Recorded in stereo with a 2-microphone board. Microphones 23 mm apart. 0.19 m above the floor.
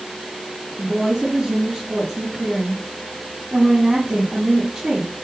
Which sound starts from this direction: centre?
A woman speaking, at 0.8 s.